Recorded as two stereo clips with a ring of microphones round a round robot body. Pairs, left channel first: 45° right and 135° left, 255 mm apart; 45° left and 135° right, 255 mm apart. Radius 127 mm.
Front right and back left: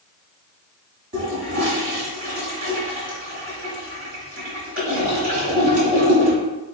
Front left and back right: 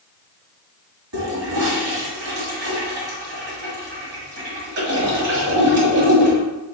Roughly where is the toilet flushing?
Behind.